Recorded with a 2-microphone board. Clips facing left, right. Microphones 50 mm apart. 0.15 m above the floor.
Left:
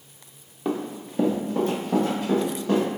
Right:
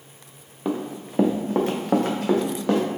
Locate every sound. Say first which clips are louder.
0.7 s running footsteps: right 1 dB; 5° right (ahead or behind), 0.8 m; by 2.9 s 75° right (ahead or behind), 1.7 m